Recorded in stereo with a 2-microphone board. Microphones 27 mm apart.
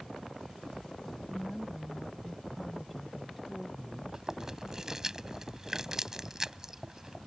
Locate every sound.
1.3 s a woman speaking: 5° right (ahead or behind); by 4.0 s 5° left (ahead or behind)
4.1 s chewing: 20° right (ahead or behind)